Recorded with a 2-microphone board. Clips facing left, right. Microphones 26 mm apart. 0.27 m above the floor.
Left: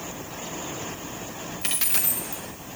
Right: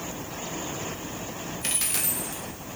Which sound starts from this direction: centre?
A dropped coin, at 1.6 s.